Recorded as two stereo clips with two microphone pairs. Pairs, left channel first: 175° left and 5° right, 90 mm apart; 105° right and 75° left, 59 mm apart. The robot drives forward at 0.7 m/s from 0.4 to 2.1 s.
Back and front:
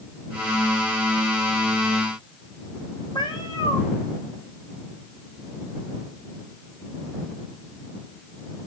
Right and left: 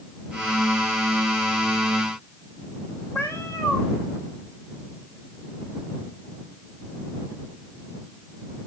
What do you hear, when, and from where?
3.1 s a cat meowing: 155° right, 3.5 m